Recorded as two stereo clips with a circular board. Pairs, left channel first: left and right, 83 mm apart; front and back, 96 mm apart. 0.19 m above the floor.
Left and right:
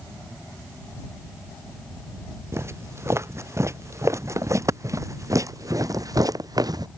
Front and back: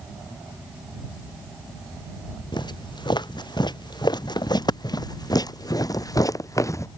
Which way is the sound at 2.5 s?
35° right.